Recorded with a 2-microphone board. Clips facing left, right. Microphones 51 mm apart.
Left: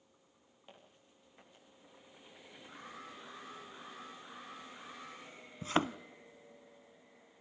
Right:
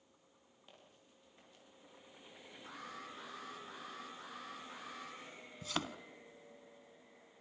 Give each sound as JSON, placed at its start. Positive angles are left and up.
{"t": 0.7, "sound": "footsteps", "side_deg": 15, "distance_m": 7.0}
{"t": 2.7, "sound": "an alarm", "side_deg": -80, "distance_m": 7.0}
{"t": 5.6, "sound": "a thud", "side_deg": 30, "distance_m": 0.5}